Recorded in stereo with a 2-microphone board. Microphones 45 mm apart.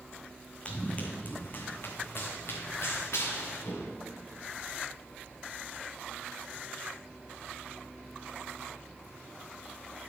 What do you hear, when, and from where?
0.7 s running footsteps: 25° left (ahead or behind), 1.2 m; by 3.9 s 80° left, 2.5 m